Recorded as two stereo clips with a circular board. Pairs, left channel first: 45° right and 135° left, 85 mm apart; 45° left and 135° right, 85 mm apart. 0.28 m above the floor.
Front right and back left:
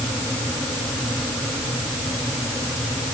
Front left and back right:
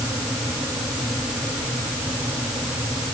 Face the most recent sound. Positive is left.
No sound to turn to.